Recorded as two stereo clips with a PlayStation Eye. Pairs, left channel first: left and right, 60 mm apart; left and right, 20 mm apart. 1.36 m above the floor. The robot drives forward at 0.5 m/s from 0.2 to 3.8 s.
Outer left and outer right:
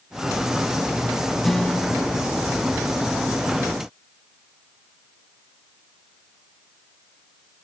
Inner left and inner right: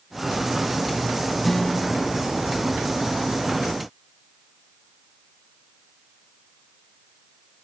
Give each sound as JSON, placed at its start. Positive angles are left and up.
{"t": 1.4, "sound": "a guitar", "side_deg": 5}